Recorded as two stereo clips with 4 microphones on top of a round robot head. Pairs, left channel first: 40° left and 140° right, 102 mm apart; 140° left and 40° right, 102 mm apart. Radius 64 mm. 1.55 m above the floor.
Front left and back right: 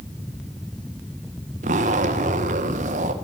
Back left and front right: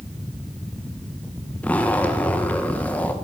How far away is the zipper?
About 1.6 m.